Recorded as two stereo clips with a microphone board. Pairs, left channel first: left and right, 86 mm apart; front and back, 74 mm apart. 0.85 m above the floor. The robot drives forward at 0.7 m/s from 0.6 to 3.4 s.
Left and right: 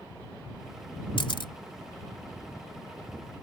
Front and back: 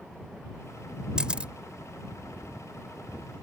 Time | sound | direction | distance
1.2 | a camera shutter | 100° left | ?